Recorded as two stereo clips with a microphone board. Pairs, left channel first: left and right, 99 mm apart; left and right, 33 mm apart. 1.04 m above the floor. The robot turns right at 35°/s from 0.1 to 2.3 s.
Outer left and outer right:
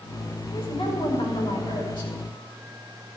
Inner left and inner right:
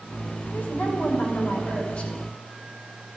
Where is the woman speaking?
75° left, 5.5 m; by 2.1 s 130° left, 5.5 m.